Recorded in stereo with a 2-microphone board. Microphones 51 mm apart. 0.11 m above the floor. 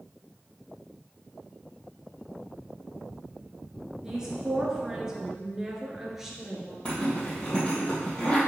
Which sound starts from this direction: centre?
A woman speaking, at 4.0 s.